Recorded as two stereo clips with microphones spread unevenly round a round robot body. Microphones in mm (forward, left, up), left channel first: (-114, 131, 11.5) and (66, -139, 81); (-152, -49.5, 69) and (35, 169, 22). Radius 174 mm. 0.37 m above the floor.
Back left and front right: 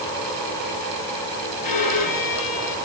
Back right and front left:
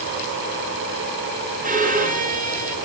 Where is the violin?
110° left, 6.5 m.